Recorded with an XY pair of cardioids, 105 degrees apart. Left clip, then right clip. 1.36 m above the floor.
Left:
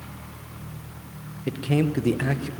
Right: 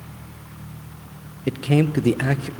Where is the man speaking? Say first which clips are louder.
Right 4 dB; 30° right, 0.9 m.